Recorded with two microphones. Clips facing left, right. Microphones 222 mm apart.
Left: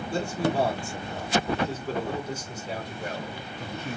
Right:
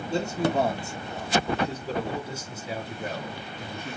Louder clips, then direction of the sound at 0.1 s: Right 1 dB; 25° right (ahead or behind).